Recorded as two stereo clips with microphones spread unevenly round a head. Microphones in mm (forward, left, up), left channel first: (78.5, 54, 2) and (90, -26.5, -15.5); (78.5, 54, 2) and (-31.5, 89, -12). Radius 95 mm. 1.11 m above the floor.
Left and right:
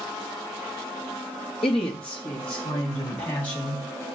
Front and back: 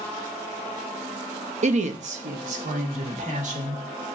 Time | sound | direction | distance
1.6 | a woman speaking | 140° left | 0.9 m